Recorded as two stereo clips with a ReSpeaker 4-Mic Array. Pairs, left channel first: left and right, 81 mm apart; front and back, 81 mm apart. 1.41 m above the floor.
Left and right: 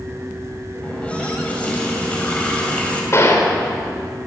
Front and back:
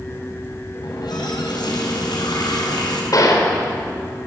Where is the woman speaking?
No woman speaking in this recording.